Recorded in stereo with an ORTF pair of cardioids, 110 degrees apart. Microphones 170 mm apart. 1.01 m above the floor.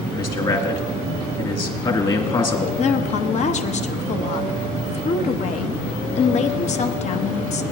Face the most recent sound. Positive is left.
turn(degrees=45)